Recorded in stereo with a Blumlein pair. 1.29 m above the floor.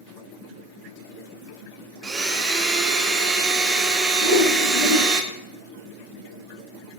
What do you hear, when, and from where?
2.0 s a blender: 15° right, 0.6 m
4.2 s a whoosh: 50° left, 1.1 m